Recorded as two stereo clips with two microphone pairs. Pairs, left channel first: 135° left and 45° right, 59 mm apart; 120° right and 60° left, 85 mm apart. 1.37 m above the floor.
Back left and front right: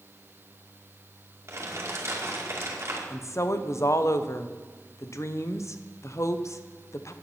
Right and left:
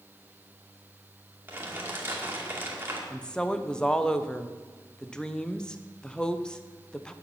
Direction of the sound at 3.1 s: 160° left.